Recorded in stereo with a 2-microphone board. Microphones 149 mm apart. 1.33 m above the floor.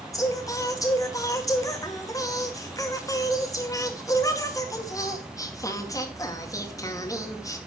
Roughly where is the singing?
Left.